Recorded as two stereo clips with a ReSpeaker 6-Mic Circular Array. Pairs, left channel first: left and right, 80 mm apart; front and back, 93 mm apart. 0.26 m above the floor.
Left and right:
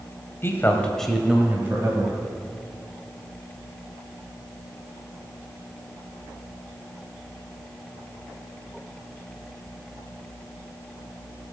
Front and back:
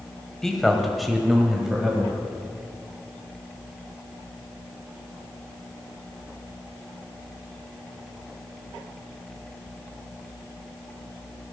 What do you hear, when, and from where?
0.4 s a man speaking: 80° left, 1.6 m; by 2.2 s 100° right, 1.9 m